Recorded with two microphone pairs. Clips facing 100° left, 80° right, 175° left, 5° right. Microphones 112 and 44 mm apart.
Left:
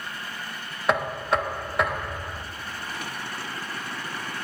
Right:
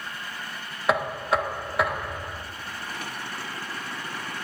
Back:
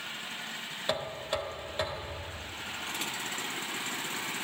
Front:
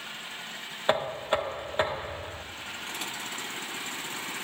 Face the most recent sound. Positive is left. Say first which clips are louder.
# even, front 7 dB
turn(degrees=0)